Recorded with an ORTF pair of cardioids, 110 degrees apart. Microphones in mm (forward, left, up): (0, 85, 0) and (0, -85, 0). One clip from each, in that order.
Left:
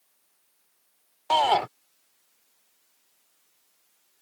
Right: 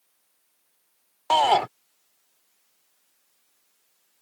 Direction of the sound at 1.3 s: 15° right.